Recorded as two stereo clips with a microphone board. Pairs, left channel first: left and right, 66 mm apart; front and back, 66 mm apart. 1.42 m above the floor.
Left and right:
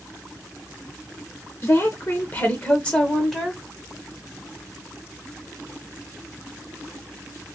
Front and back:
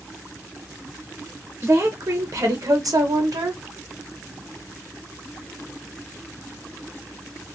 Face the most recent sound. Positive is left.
turn(degrees=-175)